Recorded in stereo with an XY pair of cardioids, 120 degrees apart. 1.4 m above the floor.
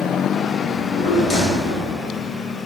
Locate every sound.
0.7 s a drawer: 50° left, 2.0 m